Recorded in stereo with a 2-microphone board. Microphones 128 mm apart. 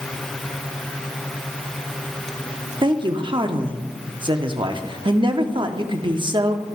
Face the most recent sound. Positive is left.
turn(degrees=-40)  # may be behind; listen again after turning